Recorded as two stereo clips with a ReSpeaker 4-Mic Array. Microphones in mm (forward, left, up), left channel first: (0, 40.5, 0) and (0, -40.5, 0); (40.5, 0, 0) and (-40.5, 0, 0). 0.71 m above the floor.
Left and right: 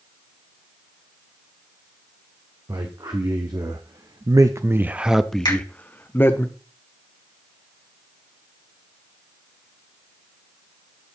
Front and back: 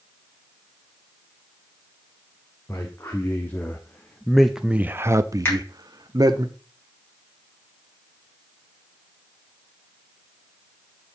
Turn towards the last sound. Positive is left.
turn(degrees=65)